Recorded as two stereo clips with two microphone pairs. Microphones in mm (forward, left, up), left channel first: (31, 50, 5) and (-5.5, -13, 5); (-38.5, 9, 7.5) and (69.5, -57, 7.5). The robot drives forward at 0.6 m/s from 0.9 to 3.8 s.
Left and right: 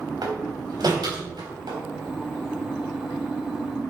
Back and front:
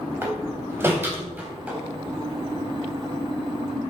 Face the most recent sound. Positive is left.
turn(degrees=-125)